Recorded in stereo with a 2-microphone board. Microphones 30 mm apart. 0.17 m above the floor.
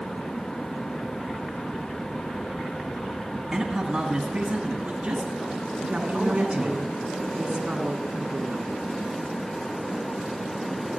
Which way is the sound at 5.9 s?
35° right (ahead or behind).